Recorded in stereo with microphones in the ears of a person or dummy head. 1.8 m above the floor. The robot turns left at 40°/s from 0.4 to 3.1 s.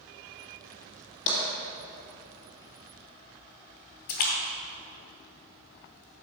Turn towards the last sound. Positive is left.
turn(degrees=45)  # may be behind; listen again after turning